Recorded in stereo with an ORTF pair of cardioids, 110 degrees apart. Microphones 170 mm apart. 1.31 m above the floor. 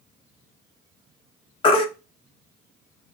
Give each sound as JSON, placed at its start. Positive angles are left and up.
{"t": 1.6, "sound": "a baby crying", "azimuth_deg": 30, "distance_m": 0.8}